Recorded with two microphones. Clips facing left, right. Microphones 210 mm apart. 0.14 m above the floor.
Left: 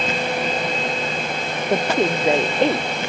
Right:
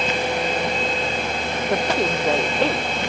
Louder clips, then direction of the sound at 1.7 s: Left 3 dB; 20° left (ahead or behind).